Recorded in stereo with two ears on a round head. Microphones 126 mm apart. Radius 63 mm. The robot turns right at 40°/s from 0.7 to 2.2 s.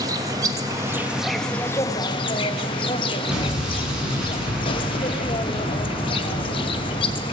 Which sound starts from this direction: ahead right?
An insect, at 0.0 s.